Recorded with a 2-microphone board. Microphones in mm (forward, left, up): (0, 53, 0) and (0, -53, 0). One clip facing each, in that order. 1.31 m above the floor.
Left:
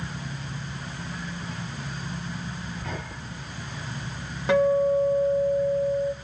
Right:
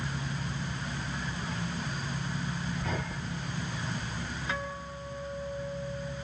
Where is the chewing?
5° left (ahead or behind), 4.5 m.